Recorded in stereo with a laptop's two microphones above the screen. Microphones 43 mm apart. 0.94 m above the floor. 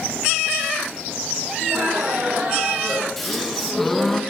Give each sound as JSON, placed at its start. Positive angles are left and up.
{"t": 1.6, "sound": "laughter", "side_deg": -45, "distance_m": 2.0}
{"t": 3.2, "sound": "a gasp", "side_deg": 5, "distance_m": 0.8}